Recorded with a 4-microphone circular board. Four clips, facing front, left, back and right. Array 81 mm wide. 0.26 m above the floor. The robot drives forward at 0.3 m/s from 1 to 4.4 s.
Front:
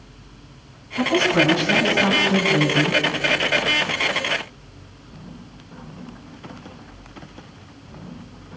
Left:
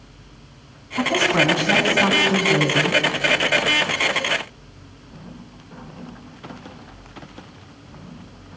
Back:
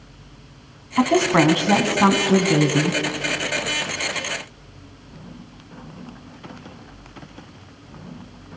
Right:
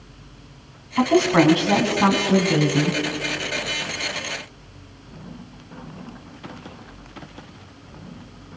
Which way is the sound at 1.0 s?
160° right.